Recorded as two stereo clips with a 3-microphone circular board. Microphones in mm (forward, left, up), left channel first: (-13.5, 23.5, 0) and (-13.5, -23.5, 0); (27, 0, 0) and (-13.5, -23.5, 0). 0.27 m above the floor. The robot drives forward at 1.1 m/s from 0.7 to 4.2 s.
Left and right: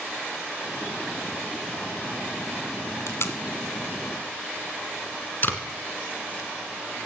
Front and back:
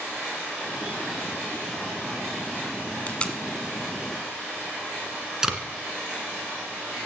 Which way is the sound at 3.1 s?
85° left.